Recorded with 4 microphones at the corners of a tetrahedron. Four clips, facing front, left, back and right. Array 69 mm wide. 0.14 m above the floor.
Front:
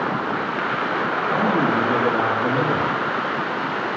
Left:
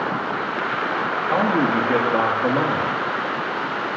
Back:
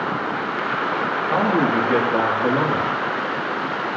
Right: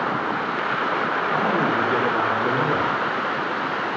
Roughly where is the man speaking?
Behind left.